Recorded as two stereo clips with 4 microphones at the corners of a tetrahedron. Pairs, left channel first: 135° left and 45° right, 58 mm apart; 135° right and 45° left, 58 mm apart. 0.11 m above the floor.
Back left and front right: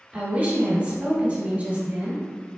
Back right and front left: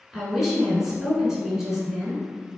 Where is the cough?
I don't hear a cough.